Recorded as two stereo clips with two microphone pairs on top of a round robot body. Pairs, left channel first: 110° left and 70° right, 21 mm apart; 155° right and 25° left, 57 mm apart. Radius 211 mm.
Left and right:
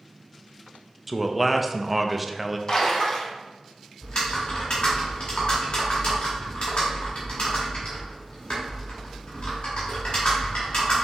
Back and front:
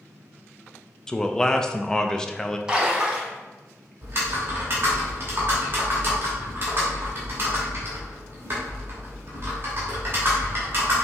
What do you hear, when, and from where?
1.1 s a man speaking: 140° right, 0.6 m
2.7 s a splash: 110° left, 1.3 m
4.0 s typing on a keyboard: 75° left, 0.9 m